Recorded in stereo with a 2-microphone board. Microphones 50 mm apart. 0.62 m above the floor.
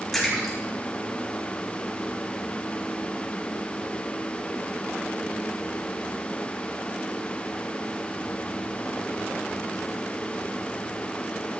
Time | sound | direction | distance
0.1 | a splash | 5° left (ahead or behind) | 6 m